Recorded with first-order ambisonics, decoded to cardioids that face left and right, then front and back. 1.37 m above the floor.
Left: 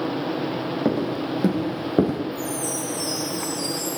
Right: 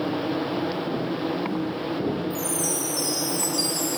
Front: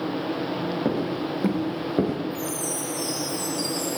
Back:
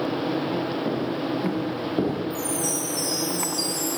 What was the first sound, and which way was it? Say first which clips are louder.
Footsteps: left 3 dB, even; 65° left.